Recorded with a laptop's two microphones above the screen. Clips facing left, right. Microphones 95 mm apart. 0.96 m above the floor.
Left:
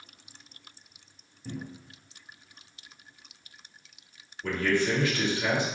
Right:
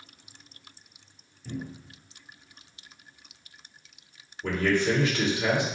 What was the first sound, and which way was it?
A cupboard door, 25° left (ahead or behind).